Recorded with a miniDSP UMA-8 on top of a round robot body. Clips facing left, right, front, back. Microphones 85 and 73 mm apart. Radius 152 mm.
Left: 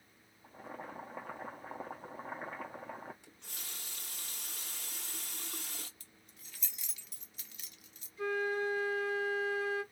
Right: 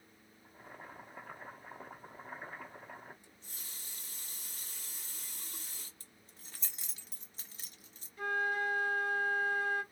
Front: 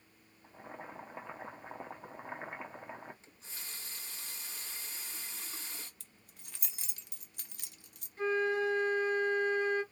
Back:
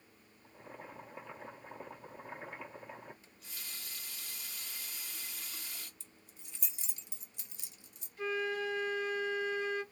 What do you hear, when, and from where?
0.4 s boiling: 65° left, 0.5 m
3.2 s a running tap: 65° left, 0.8 m
6.0 s keys jangling: 35° right, 0.7 m
8.2 s a flute: 55° right, 2 m